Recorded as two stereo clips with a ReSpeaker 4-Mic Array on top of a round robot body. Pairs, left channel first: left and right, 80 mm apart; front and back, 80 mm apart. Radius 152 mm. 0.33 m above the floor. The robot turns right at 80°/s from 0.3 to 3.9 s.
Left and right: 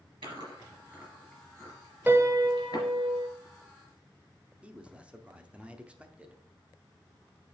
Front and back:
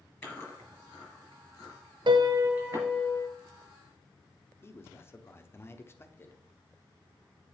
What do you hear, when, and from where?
0.2 s chewing: 75° right, 4 m; by 2.9 s 130° left, 4 m
2.1 s a piano: 160° right, 0.7 m; by 3.3 s 60° right, 0.7 m
4.6 s a man speaking: 25° right, 1.1 m